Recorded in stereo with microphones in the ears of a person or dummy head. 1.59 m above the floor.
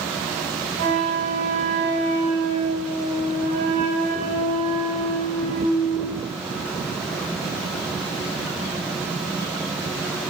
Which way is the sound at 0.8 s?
45° right (ahead or behind).